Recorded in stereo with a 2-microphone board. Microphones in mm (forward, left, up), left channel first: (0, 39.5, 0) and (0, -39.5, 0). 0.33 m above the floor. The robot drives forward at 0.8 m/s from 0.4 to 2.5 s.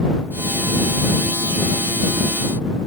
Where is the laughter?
No laughter in this recording.